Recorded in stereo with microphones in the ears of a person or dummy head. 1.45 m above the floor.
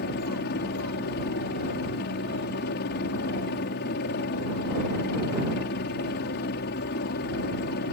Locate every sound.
0.0 s a helicopter: 50° left (ahead or behind)